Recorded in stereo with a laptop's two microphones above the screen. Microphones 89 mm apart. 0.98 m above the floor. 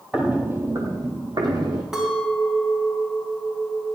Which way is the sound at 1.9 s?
5° right (ahead or behind).